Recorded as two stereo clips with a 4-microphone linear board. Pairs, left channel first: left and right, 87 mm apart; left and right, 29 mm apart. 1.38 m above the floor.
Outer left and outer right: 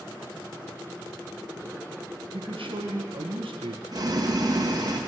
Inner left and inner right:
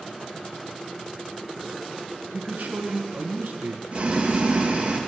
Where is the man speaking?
75° right (ahead or behind), 1.3 m.